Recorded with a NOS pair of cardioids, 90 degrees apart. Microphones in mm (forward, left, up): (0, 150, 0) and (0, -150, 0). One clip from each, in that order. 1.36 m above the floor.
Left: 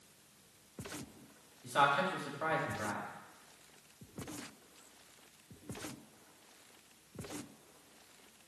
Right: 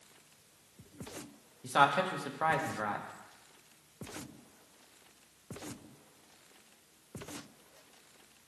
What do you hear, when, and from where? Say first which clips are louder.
1.6 s a man speaking: right 3 dB; 45° right, 1.6 m